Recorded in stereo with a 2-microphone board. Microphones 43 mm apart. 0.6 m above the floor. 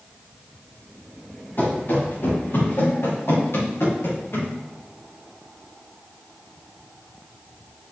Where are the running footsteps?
50° left (ahead or behind), 4.5 m; by 4.5 s 70° left (ahead or behind), 6.5 m.